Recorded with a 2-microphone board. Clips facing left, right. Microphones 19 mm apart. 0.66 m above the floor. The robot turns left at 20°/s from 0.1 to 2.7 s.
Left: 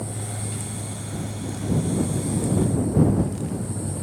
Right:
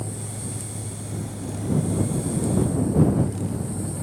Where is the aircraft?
35° left (ahead or behind); by 4.0 s centre (ahead or behind).